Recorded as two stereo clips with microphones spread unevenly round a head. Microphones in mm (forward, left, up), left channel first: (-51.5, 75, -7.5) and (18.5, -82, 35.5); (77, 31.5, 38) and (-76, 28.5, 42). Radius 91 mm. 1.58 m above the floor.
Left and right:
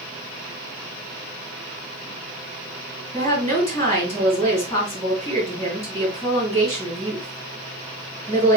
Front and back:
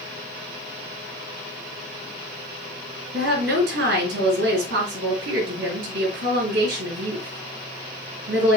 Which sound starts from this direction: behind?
A woman speaking, at 3.1 s.